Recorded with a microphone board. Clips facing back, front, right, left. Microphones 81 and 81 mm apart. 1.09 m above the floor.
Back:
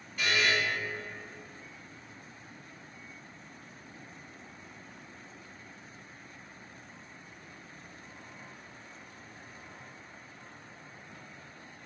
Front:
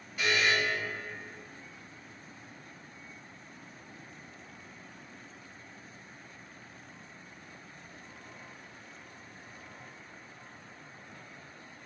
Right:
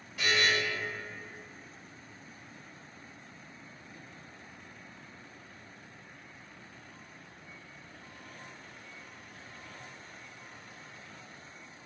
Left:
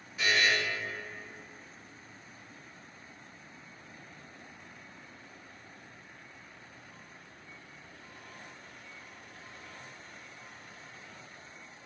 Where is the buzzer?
80° right, 1.6 m.